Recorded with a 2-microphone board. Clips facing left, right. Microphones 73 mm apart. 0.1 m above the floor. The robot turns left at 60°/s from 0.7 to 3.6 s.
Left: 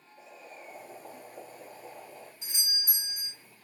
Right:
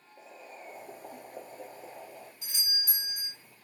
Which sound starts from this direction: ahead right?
Boiling, at 0.2 s.